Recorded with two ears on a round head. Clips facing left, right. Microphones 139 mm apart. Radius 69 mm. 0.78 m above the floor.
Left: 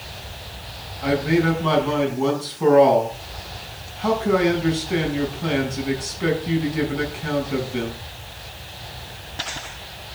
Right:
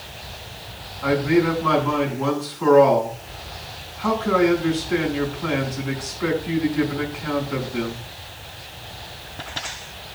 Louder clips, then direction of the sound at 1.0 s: Right 1 dB; 30° left (ahead or behind).